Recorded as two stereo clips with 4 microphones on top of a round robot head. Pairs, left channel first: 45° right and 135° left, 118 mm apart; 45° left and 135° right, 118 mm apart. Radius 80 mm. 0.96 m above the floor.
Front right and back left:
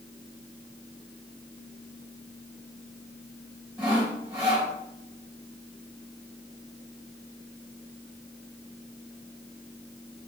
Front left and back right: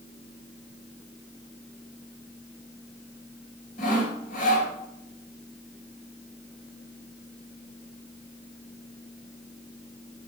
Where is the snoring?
No snoring in this recording.